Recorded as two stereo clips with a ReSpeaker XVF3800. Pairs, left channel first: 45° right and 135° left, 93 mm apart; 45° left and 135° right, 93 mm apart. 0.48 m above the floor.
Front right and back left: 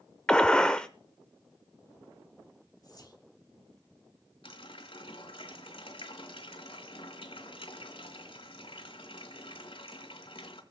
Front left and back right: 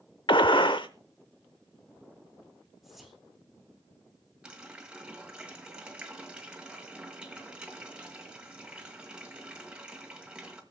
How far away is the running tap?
About 1.6 m.